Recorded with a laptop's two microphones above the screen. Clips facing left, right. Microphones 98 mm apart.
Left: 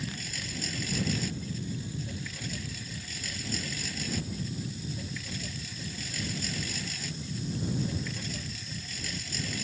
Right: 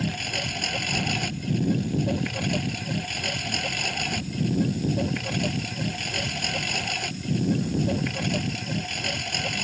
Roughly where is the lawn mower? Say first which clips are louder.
Right 9 dB; right.